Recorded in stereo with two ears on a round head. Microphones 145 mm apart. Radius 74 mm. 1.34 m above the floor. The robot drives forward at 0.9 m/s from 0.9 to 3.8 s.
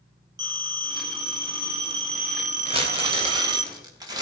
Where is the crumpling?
40° right (ahead or behind), 1.8 m; by 4.2 s 25° right (ahead or behind), 2.5 m.